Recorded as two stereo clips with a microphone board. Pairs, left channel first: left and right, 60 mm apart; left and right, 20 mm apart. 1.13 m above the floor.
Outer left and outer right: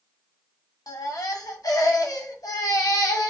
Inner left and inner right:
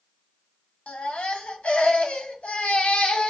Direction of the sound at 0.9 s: 90° left.